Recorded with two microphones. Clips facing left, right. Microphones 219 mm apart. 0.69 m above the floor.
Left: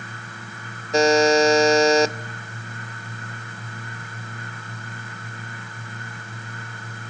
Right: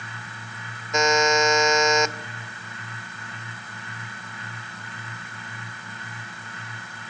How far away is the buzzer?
About 0.5 m.